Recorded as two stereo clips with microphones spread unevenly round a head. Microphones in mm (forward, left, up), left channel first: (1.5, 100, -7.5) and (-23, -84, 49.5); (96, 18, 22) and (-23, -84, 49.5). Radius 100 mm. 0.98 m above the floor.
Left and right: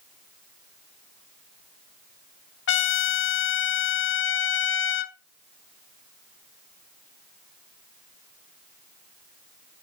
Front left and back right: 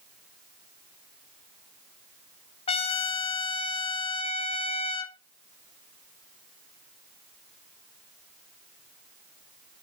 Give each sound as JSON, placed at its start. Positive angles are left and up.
{"t": 2.7, "sound": "a trumpet", "azimuth_deg": 100, "distance_m": 0.9}